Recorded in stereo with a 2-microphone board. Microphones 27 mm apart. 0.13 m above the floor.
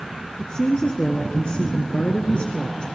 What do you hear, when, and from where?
0.4 s a woman speaking: 35° left (ahead or behind), 1.7 m; by 2.9 s 40° left (ahead or behind), 1.9 m